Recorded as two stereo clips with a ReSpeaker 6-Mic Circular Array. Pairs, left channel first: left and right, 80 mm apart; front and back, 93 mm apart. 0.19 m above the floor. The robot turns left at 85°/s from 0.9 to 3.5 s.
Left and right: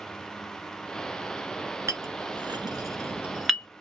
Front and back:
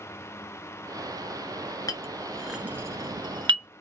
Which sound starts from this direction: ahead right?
A clink, at 1.9 s.